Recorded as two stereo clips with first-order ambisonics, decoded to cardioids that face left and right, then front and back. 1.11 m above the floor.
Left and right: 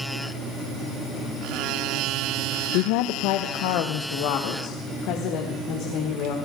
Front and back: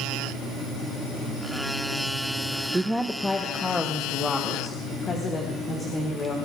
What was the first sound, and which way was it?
A woman speaking, 100° left.